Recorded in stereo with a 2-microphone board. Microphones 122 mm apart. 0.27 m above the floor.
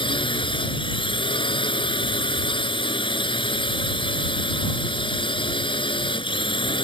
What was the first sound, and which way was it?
A drone, 45° left (ahead or behind).